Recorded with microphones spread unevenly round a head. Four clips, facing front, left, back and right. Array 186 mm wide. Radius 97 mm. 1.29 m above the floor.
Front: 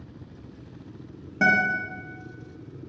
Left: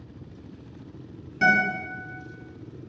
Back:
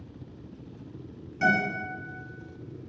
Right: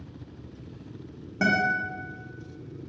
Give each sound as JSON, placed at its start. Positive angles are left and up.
{"t": 1.4, "sound": "a guitar", "azimuth_deg": -30, "distance_m": 1.0}